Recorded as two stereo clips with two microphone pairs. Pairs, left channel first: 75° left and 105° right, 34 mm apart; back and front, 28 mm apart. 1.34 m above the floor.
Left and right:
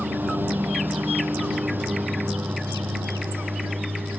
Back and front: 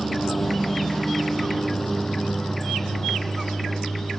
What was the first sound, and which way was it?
A lawn mower, 95° right.